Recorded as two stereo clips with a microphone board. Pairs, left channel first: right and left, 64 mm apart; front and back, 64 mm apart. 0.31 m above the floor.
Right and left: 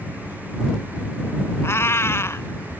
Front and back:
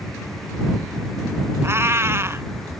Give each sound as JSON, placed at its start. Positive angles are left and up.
{"t": 1.6, "sound": "a cat meowing", "azimuth_deg": -135}